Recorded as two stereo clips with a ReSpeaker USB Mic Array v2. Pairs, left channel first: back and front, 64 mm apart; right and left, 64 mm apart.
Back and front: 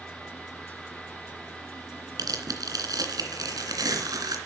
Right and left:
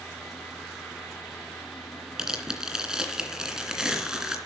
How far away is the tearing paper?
About 2.5 m.